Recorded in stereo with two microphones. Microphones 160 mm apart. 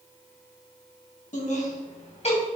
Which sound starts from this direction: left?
Laughter, at 1.3 s.